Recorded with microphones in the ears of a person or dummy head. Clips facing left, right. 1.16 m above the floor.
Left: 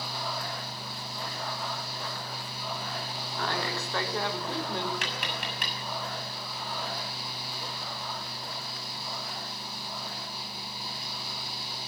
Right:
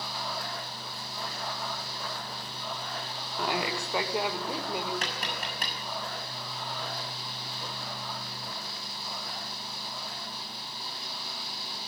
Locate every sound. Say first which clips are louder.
3.4 s a woman speaking: right 2 dB; 10° right (ahead or behind), 2.5 m; by 4.9 s 5° right (ahead or behind), 3 m
5.0 s tapping: even; 35° right (ahead or behind), 5.5 m